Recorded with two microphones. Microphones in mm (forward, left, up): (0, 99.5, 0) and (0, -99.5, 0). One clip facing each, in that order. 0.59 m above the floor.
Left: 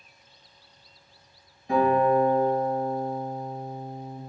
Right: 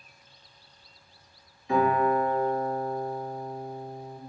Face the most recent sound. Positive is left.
turn(degrees=50)  # may be behind; listen again after turning